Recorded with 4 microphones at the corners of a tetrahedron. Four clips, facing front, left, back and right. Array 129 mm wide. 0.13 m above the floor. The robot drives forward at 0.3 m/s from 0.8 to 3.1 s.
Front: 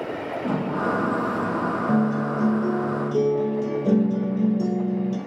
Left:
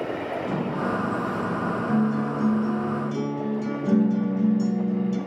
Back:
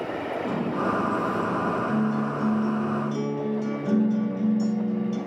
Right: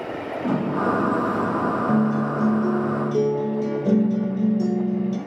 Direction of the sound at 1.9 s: 50° right.